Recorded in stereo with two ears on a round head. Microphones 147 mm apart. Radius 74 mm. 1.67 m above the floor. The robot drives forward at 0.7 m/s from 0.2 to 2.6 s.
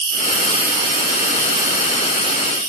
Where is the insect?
30° right (ahead or behind), 2.5 m; by 2.7 s 15° right (ahead or behind), 4 m.